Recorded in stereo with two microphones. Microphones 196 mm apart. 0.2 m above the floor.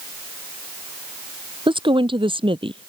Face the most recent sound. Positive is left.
turn(degrees=-25)  # may be behind; listen again after turning